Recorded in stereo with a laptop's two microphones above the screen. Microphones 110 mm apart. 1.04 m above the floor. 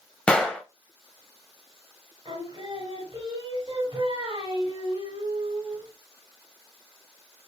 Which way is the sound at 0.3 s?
10° left (ahead or behind).